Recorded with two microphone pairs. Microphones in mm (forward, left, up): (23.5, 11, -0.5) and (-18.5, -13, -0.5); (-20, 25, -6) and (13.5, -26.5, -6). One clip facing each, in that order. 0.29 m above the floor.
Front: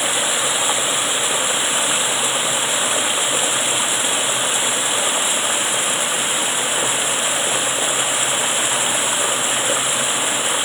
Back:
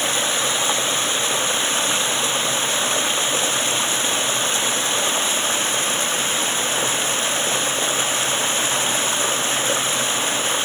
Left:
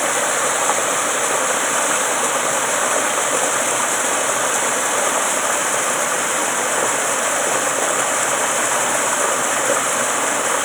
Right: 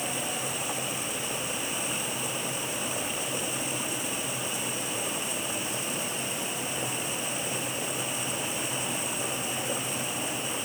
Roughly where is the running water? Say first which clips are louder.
Front 1 dB, left 14 dB; left.